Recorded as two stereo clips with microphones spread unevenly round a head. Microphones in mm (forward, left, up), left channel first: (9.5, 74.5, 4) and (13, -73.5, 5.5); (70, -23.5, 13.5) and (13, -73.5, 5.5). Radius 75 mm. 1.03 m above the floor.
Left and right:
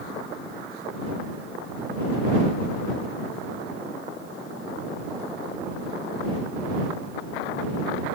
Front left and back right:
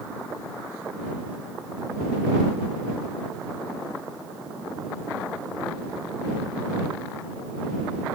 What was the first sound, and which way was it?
Only background noise.